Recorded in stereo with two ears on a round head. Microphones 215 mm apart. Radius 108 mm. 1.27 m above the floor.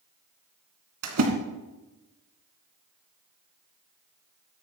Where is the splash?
70° right (ahead or behind), 2.5 m.